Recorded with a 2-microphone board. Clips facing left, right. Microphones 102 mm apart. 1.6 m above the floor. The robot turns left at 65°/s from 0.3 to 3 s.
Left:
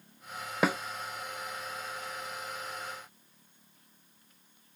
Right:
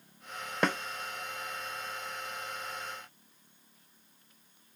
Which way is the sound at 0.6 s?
5° left (ahead or behind).